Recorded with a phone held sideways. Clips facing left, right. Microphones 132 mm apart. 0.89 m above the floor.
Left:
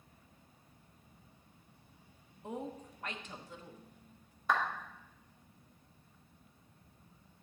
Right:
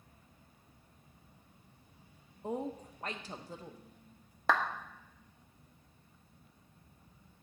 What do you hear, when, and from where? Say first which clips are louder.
2.4 s a woman speaking: right 4 dB; 35° right (ahead or behind), 1.0 m
4.5 s a clap: right 2 dB; 80° right, 1.1 m